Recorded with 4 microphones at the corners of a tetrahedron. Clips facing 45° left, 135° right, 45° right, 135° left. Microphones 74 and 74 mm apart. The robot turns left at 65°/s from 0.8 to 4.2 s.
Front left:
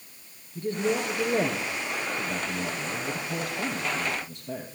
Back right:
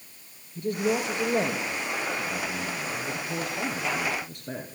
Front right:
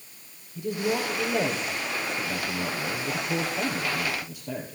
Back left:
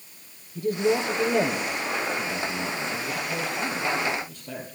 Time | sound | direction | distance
0.6 | a man speaking | 100° left | 2.5 m